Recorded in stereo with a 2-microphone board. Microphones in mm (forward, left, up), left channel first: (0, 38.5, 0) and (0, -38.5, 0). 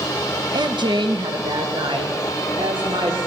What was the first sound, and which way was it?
A woman speaking, 55° right (ahead or behind).